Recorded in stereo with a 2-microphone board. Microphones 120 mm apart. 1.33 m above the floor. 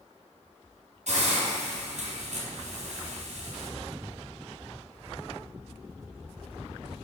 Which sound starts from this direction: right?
A hiss, at 1.1 s.